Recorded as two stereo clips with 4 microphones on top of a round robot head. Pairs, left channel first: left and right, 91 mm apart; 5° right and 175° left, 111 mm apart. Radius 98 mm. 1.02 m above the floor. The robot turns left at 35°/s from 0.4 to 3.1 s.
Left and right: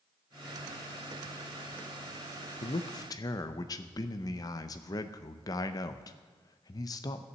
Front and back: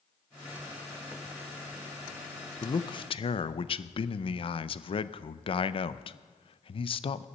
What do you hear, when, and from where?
2.6 s a man speaking: 55° left, 0.5 m; by 7.2 s 40° left, 0.5 m